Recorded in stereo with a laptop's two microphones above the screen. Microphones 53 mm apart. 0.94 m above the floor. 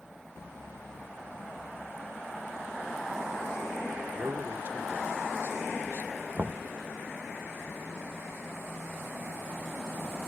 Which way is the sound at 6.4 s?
40° right (ahead or behind).